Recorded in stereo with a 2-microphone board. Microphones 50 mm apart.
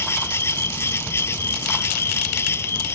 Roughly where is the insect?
Left.